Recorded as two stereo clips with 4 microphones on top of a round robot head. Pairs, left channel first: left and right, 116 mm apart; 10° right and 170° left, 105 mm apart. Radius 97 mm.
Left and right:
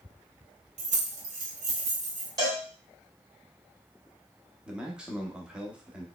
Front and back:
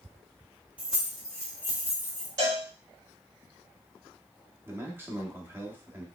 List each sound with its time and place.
0.8 s keys jangling: 110° right, 0.9 m; by 2.3 s 75° right, 1.3 m
2.4 s a cowbell: 140° right, 2.5 m
4.7 s a man speaking: 160° right, 1.0 m